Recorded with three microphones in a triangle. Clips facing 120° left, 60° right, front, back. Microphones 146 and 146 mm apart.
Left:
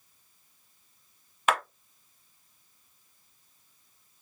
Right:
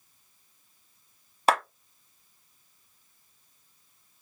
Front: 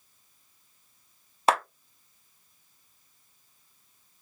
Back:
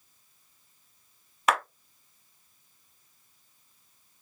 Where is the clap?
35° right, 1.1 m.